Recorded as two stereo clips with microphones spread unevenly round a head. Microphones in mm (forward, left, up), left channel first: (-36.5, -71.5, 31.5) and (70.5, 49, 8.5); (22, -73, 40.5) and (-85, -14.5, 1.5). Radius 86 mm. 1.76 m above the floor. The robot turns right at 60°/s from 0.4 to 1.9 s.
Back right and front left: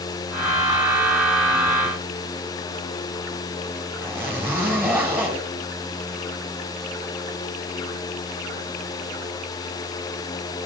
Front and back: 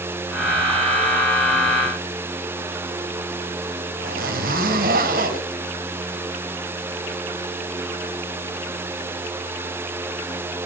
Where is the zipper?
130° left, 3.5 m.